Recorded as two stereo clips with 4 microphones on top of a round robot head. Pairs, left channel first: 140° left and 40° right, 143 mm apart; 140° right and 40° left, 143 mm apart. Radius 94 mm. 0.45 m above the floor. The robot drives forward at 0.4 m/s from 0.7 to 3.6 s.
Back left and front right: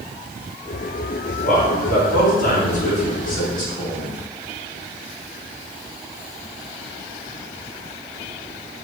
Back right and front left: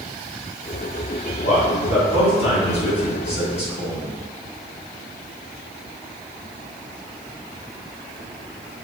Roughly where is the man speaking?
Behind.